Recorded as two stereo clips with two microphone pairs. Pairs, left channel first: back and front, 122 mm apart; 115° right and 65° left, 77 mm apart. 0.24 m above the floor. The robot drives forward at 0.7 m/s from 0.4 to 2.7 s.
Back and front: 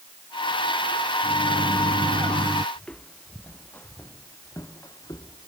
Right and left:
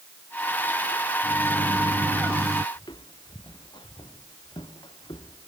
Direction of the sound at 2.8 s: 100° right.